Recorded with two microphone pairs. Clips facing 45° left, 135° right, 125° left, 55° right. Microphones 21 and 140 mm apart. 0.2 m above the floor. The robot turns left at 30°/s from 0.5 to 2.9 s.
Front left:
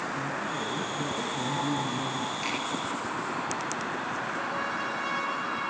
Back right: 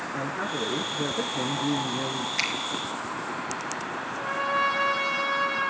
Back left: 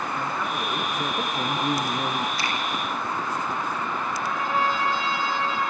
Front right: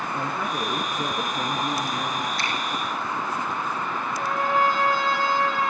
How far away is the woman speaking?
About 3.5 m.